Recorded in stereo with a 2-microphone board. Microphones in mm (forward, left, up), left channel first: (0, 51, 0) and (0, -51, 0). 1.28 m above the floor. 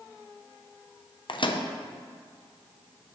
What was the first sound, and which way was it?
A microwave, 55° left (ahead or behind).